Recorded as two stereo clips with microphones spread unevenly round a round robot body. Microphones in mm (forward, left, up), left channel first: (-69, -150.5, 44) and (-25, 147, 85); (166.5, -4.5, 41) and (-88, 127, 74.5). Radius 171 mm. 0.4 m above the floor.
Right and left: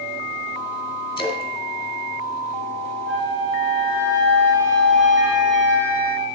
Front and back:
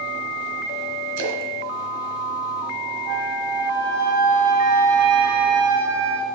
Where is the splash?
170° right, 1.4 m.